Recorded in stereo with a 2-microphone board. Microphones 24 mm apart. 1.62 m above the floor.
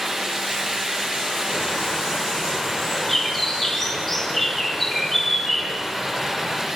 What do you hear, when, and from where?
1.5 s a bird: 5° left (ahead or behind), 5.5 m